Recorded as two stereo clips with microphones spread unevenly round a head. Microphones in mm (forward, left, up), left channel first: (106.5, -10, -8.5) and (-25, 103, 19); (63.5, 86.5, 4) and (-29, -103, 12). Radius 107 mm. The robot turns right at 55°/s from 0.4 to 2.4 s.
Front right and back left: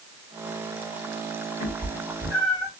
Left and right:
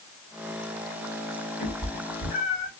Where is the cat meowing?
5° left, 1.9 m; by 2.7 s 45° left, 1.9 m.